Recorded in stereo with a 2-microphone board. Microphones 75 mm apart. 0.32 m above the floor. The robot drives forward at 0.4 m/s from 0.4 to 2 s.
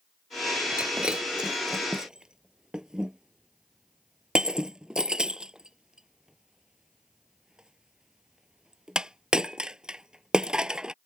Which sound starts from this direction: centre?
Breaking glass, at 0.8 s.